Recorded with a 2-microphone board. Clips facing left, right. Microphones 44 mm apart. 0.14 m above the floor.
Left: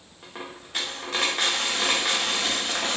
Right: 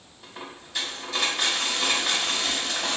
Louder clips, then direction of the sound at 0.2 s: Left 2 dB; 70° left (ahead or behind).